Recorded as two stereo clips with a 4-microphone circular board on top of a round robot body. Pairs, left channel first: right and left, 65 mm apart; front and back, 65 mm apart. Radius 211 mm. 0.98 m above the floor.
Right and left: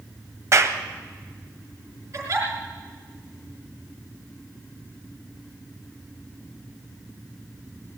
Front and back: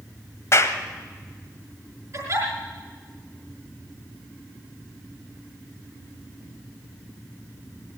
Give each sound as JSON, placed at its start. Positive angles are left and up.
{"t": 0.5, "sound": "a clap", "azimuth_deg": 45, "distance_m": 1.4}
{"t": 2.1, "sound": "a giggle", "azimuth_deg": 135, "distance_m": 5.0}